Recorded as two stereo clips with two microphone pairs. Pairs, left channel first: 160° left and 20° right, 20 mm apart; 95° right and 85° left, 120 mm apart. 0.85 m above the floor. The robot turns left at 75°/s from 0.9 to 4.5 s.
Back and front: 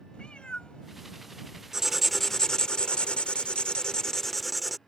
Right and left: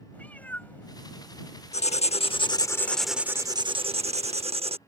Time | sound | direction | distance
0.1 | a cat meowing | 175° right | ?
1.7 | writing | 90° right | ?